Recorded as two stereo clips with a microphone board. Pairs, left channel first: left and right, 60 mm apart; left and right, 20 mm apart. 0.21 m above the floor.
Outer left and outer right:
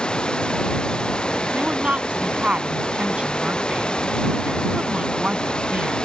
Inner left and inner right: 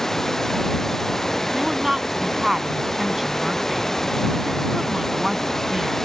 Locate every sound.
0.0 s running water: 15° left (ahead or behind)
1.5 s a woman speaking: 20° right (ahead or behind)